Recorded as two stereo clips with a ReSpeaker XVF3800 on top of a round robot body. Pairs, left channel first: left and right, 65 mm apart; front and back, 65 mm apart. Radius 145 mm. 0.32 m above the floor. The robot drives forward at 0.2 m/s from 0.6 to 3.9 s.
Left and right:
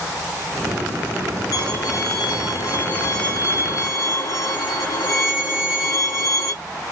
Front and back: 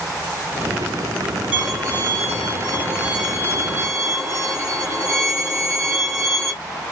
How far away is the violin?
About 1.9 m.